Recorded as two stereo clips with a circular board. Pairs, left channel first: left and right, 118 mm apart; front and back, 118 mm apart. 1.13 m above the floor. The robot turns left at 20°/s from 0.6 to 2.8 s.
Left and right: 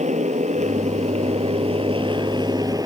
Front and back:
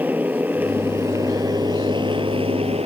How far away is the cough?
No cough in this recording.